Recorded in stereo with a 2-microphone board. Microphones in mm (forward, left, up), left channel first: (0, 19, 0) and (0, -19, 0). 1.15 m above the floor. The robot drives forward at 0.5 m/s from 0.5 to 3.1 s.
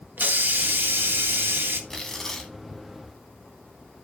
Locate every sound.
0.2 s a hiss: 65° right (ahead or behind), 0.9 m; by 1.8 s 70° right (ahead or behind), 0.9 m
1.9 s tearing paper: 15° left (ahead or behind), 1.3 m